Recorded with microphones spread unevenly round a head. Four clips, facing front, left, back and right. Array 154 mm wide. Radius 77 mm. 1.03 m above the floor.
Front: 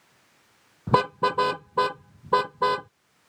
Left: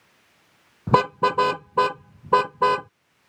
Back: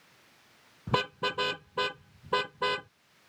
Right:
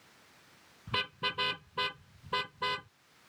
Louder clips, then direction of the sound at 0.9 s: Left 18 dB, front 9 dB; 65° left.